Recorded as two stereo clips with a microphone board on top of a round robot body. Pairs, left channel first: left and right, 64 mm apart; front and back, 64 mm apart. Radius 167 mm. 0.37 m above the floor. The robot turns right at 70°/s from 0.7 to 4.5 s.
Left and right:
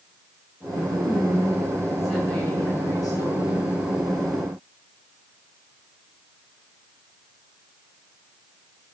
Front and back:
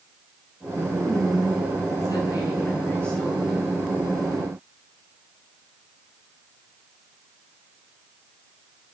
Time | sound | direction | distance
0.9 | a woman speaking | 80° right | 7.5 m